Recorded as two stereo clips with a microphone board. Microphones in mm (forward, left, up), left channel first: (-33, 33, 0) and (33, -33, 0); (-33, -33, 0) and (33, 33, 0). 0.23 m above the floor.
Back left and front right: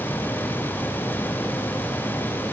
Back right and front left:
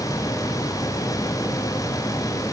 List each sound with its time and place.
Only background noise.